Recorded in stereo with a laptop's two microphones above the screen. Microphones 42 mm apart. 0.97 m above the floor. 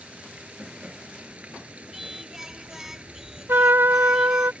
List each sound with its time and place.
0.0 s running water: 30° right (ahead or behind)
1.9 s singing: 10° right (ahead or behind)
3.5 s a trumpet: 75° right (ahead or behind)